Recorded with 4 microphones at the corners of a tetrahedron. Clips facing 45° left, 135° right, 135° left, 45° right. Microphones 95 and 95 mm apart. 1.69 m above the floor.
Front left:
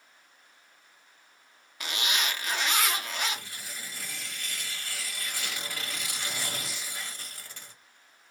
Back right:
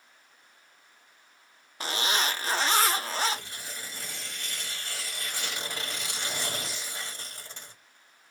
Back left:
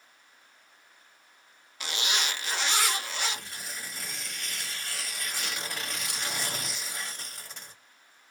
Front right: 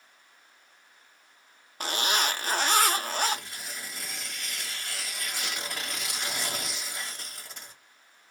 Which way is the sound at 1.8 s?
85° right.